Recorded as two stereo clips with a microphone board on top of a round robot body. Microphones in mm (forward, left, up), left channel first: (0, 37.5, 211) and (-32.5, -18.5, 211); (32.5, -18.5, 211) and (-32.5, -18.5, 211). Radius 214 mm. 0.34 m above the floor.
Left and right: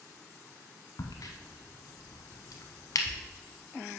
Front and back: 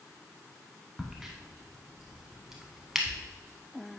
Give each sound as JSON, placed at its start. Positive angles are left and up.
{"t": 1.0, "sound": "a crack", "azimuth_deg": 95, "distance_m": 0.6}